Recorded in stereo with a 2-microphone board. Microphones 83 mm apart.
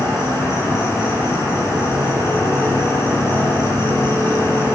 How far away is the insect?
About 5 m.